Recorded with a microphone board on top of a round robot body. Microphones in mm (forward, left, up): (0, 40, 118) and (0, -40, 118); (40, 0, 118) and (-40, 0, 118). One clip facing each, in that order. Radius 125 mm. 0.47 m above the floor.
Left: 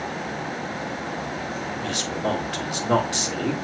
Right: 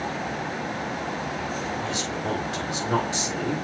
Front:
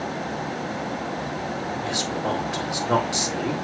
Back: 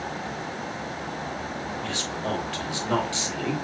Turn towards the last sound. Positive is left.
turn(degrees=70)